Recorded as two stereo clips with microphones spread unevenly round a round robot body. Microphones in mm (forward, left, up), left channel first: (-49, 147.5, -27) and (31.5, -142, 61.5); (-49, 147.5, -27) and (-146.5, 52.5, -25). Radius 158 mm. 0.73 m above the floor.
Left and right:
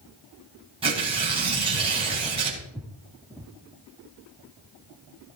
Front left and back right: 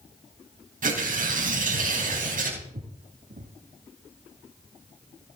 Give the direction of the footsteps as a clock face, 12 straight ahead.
5 o'clock.